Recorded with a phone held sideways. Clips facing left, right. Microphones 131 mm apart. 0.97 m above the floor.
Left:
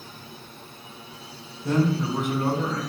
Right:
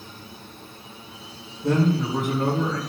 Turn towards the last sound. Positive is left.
turn(degrees=-65)  # may be behind; listen again after turning